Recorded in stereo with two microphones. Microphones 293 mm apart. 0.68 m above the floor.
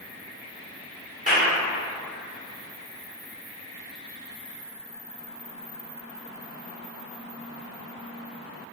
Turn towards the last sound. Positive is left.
turn(degrees=-25)  # may be behind; listen again after turning